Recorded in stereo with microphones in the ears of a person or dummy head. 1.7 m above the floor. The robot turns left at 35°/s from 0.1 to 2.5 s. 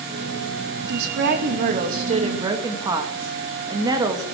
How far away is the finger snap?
No finger snap in this recording.